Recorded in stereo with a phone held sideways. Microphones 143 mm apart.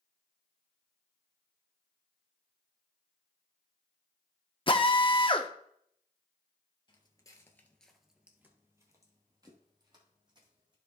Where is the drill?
35° left (ahead or behind), 0.7 m.